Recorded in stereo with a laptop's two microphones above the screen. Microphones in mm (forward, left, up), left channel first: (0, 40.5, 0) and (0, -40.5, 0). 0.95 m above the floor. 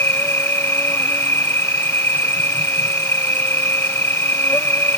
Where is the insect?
25° left (ahead or behind).